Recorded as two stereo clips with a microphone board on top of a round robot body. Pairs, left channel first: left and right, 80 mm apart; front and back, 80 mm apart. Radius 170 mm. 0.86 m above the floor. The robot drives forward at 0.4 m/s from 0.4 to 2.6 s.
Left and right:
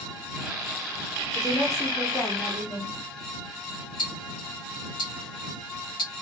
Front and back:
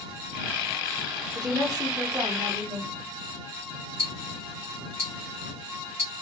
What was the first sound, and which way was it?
A woman speaking, 135° left.